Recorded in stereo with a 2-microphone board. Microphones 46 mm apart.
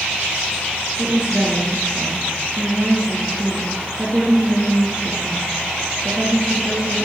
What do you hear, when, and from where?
1.0 s a woman speaking: 20° right (ahead or behind), 3 m